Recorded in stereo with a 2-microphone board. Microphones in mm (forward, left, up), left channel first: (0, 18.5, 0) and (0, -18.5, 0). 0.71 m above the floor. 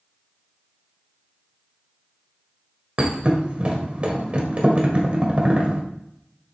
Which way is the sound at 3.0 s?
25° right (ahead or behind).